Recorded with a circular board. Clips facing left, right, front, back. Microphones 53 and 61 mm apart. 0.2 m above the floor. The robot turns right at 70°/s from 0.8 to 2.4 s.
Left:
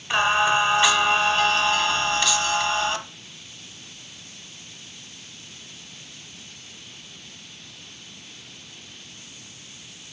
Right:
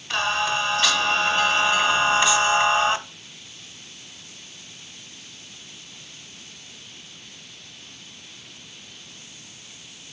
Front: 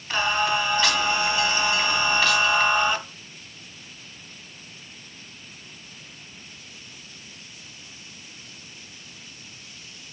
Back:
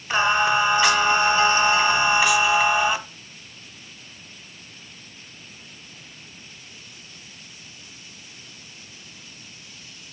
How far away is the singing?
About 1.2 m.